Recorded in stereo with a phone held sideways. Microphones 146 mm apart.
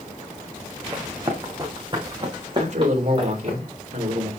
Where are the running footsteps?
25° right (ahead or behind), 3.5 m; by 3.6 s 40° right (ahead or behind), 5 m.